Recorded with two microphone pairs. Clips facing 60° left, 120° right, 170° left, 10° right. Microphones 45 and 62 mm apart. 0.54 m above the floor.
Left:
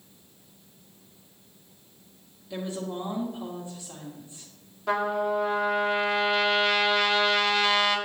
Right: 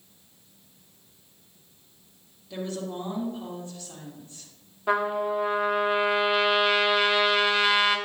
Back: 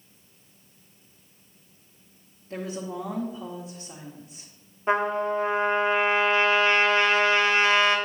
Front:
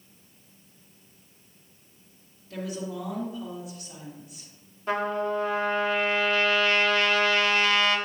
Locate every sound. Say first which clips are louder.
2.5 s a woman speaking: even, back 1 dB; 135° left, 1.5 m
4.9 s a trumpet: right 1 dB, back 3 dB; straight behind, 1.1 m